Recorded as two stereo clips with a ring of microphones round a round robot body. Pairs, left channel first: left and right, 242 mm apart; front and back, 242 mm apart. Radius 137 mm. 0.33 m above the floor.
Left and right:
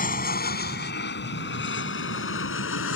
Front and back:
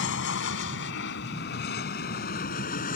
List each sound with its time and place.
0.0 s an aircraft: 40° left; by 3.0 s 60° left